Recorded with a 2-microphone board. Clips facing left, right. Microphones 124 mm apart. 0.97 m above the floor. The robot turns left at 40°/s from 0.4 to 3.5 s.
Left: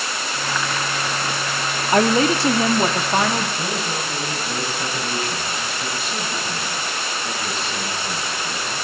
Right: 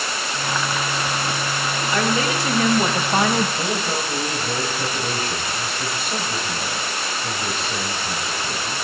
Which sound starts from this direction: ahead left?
A woman speaking, at 1.9 s.